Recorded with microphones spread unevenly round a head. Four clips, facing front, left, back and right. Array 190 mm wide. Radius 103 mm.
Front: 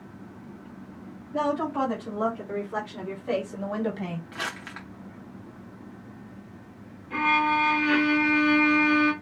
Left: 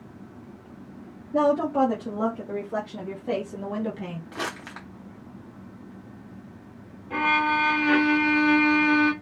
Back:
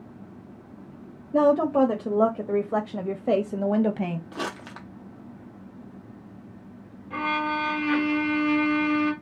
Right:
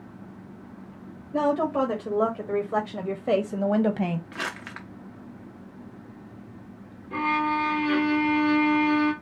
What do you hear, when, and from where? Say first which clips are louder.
1.3 s a woman speaking: left 2 dB, back 7 dB; 175° left, 1.9 m; by 4.2 s 120° right, 0.8 m
4.3 s crumpling: left 1 dB, back 2 dB; 155° left, 0.6 m
7.1 s a violin: left 2 dB, front 3 dB; 95° left, 1.6 m